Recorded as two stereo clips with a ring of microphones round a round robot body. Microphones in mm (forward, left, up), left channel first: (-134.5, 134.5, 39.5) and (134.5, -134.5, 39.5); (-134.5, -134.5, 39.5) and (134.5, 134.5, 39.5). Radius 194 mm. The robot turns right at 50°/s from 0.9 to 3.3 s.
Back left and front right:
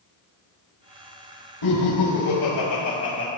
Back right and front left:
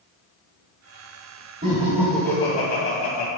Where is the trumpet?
No trumpet in this recording.